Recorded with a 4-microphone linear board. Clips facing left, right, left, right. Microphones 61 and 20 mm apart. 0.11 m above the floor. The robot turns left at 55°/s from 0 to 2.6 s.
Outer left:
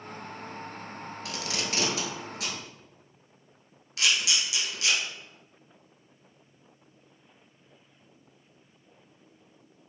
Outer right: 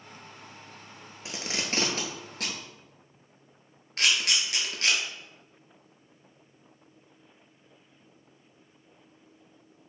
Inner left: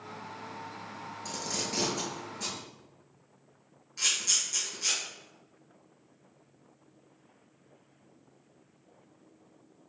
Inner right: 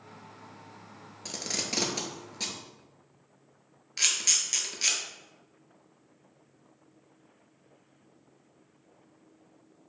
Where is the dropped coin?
I don't hear a dropped coin.